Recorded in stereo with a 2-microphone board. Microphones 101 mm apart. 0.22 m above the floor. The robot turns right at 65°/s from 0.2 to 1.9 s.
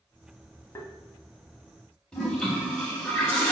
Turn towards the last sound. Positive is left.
turn(degrees=10)  # may be behind; listen again after turning